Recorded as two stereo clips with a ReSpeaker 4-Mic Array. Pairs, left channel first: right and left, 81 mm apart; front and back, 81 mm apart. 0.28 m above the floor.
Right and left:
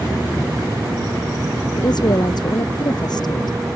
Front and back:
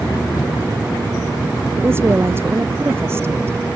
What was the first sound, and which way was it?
A woman speaking, 120° right.